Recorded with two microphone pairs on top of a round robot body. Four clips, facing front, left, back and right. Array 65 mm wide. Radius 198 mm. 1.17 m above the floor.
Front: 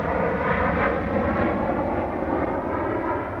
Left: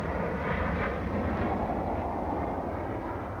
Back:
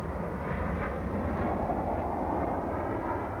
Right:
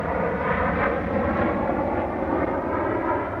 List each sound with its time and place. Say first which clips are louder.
0.0 s an aircraft: right 7 dB, front 12 dB; 35° right; by 3.4 s 60° right